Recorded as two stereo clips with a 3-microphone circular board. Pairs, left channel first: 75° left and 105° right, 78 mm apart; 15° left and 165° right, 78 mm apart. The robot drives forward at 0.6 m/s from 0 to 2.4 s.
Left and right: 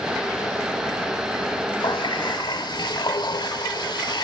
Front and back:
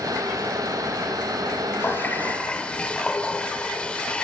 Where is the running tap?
75° left, 1.2 m; by 4.3 s 90° left, 1.2 m.